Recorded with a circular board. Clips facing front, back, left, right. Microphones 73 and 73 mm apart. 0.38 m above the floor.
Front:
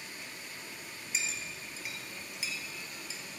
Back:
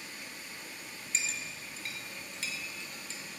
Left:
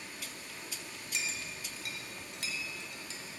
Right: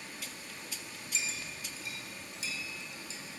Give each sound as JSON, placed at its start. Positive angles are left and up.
{"t": 1.1, "sound": "a clink", "azimuth_deg": 80, "distance_m": 1.6}